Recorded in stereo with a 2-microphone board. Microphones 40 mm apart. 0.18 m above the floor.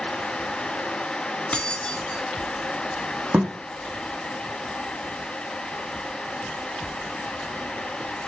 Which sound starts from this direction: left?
Keys jangling, at 1.5 s.